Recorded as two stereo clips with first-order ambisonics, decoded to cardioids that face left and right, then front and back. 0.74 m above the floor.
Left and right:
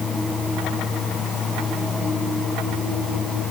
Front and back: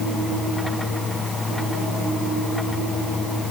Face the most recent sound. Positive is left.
No sound to turn to.